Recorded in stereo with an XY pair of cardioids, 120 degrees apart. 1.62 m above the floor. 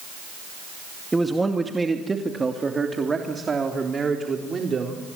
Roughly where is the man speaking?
Ahead.